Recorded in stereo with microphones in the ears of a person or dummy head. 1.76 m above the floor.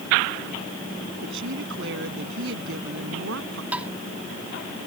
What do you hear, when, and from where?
1.2 s a woman speaking: 70° right (ahead or behind)
3.7 s tapping: 10° right (ahead or behind)